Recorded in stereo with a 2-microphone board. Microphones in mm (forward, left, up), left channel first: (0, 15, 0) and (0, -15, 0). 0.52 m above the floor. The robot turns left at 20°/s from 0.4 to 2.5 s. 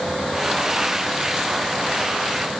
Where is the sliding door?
No sliding door in this recording.